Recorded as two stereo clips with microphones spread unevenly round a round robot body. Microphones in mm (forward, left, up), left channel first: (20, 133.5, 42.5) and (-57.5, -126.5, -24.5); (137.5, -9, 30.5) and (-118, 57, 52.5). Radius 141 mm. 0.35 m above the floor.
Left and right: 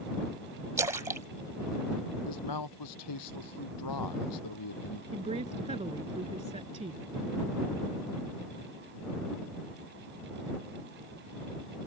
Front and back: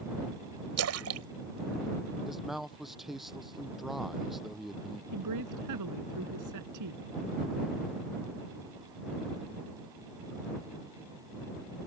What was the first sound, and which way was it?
A splash, 175° right.